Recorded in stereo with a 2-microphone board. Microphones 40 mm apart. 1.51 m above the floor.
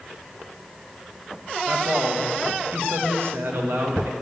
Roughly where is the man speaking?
Right.